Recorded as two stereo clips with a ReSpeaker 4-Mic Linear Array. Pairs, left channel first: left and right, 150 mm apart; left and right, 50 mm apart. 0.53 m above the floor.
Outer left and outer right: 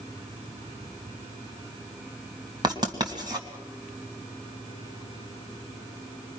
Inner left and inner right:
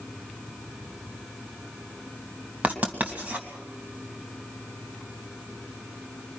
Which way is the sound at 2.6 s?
30° right (ahead or behind).